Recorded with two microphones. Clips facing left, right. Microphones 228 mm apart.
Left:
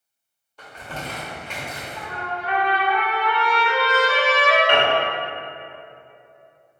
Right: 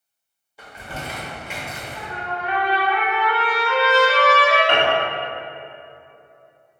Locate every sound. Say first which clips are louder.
0.6 s crumpling: even; 10° right (ahead or behind), 0.8 m
1.9 s a trumpet: right 2 dB; 5° right (ahead or behind), 1.5 m
4.7 s a piano: even; 55° right (ahead or behind), 0.8 m